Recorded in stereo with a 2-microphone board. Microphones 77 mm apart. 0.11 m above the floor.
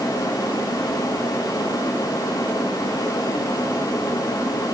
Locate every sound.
Only background noise.